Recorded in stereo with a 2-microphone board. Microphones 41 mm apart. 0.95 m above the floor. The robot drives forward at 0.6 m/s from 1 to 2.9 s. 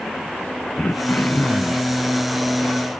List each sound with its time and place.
0.8 s throat clearing: 45° left (ahead or behind), 0.8 m; by 1.9 s 55° left (ahead or behind), 0.7 m